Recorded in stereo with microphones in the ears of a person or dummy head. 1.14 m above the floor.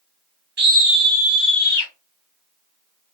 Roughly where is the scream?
Right.